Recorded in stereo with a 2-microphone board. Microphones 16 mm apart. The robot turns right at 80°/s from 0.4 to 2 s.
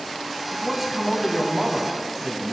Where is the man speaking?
15° right (ahead or behind), 1.0 m; by 2.5 s centre (ahead or behind), 1.0 m.